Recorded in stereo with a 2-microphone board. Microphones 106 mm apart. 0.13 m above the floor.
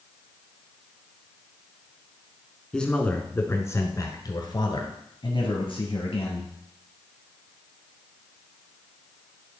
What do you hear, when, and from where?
2.7 s a man speaking: 5° left (ahead or behind), 1.2 m; by 6.5 s 65° left (ahead or behind), 2.5 m